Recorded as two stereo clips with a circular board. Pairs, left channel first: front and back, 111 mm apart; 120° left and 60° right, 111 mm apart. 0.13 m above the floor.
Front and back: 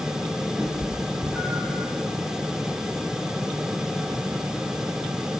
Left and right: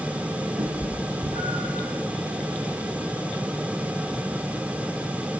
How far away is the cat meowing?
About 3.5 m.